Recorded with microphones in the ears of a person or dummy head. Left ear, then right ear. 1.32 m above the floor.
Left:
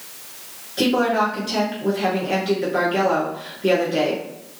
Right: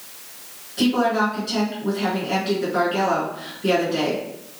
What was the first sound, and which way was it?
A woman speaking, 25° left (ahead or behind).